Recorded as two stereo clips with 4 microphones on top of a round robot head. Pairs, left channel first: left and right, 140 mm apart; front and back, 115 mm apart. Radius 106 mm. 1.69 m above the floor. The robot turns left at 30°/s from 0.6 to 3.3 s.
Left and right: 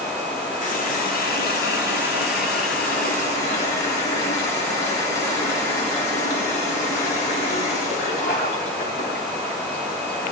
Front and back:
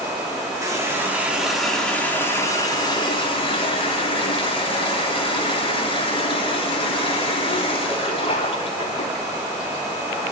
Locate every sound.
0.6 s a running tap: 120° left, 3 m; by 9.2 s 35° left, 3 m